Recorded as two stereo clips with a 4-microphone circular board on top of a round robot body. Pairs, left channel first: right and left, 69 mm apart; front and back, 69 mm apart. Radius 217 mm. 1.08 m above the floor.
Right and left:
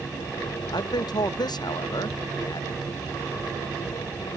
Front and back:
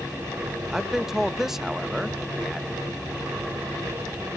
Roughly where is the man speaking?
Right.